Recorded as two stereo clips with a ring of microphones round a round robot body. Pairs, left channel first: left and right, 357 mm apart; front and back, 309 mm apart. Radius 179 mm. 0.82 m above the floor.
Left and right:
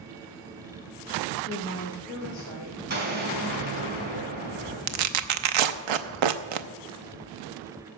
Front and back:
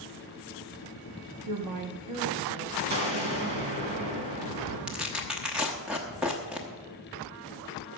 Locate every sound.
1.5 s a woman speaking: 170° left, 1.1 m; by 2.8 s 135° left, 1.6 m
2.9 s an explosion: 155° right, 3 m
4.9 s tearing paper: 95° right, 0.8 m